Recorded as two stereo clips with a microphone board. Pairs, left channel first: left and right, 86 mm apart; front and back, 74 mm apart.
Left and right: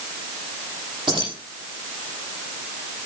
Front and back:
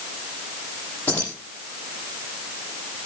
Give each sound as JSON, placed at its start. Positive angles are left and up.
{"t": 1.1, "sound": "keys jangling", "azimuth_deg": -70, "distance_m": 9.5}